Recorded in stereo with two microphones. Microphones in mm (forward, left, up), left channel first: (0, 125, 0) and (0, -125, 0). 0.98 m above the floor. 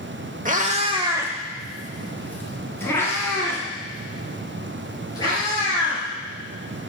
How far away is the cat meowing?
About 0.8 m.